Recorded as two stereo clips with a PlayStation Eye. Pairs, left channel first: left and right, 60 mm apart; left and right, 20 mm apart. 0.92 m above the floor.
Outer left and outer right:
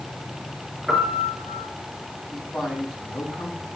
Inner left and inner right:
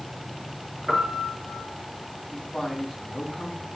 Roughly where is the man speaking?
Centre.